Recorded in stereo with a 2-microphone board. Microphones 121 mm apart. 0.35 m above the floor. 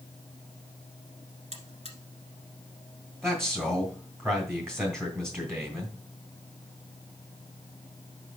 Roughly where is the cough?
I don't hear a cough.